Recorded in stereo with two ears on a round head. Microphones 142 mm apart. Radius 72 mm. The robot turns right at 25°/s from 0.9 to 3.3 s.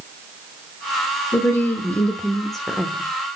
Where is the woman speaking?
145° left, 1.0 m; by 3.1 s 170° right, 1.0 m.